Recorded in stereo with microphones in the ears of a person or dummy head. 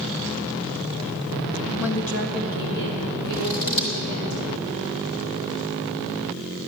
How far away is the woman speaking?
About 1.0 m.